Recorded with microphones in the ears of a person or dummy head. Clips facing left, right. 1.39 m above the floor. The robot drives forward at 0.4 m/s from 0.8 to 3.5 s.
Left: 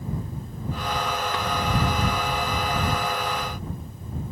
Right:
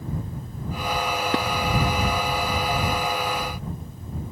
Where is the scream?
I don't hear a scream.